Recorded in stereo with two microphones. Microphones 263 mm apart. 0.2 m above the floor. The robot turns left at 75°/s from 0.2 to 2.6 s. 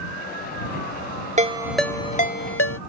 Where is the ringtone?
30° right (ahead or behind); by 2.8 s 55° left (ahead or behind).